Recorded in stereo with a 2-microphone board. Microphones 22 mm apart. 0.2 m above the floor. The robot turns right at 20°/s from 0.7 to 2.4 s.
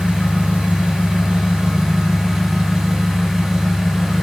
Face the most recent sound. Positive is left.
turn(degrees=-35)